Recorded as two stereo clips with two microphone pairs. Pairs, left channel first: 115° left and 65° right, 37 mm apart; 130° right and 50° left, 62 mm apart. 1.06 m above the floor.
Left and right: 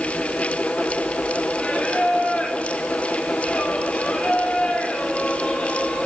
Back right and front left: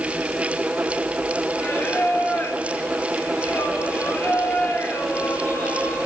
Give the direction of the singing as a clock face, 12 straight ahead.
6 o'clock.